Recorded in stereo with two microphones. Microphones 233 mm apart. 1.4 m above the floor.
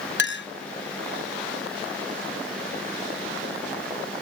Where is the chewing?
No chewing in this recording.